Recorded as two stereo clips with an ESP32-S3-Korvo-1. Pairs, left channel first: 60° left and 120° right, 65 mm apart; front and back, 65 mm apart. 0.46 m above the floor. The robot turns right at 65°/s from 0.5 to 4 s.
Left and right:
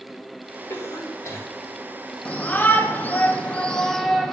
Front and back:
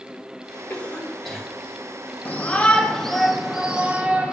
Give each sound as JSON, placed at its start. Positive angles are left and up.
{"t": 0.7, "sound": "a cough", "azimuth_deg": 50, "distance_m": 2.0}
{"t": 2.2, "sound": "a shout", "azimuth_deg": 25, "distance_m": 0.8}